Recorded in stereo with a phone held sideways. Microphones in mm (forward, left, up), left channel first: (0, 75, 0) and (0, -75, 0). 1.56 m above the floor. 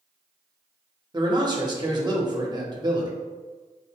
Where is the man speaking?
30° right (ahead or behind), 1.0 m.